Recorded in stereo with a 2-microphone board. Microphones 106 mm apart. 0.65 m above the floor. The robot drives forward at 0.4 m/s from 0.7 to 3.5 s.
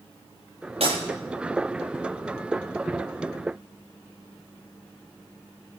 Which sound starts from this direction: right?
Breaking glass, at 0.8 s.